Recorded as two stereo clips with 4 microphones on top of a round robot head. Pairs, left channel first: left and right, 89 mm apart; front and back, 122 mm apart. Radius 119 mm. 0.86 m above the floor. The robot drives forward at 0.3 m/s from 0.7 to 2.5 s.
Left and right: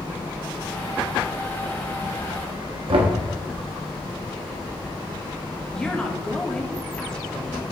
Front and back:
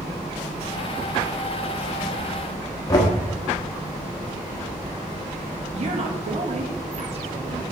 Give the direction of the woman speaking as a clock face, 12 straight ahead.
6 o'clock.